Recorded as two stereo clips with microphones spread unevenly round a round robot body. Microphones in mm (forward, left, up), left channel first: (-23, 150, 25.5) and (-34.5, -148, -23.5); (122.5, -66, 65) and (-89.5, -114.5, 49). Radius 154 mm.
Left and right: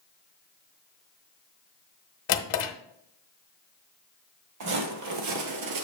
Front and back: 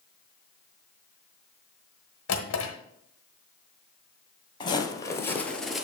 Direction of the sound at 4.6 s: 50° right.